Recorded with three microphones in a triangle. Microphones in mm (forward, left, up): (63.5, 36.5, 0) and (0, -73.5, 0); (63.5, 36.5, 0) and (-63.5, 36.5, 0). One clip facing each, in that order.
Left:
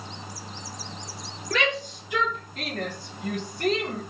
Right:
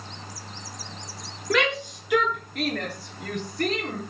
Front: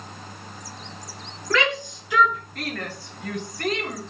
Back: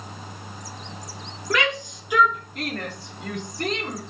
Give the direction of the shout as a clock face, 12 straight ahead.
4 o'clock.